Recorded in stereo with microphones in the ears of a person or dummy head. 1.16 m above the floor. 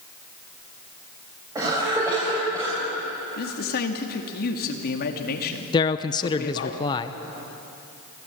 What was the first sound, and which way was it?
A cough, 15° right (ahead or behind).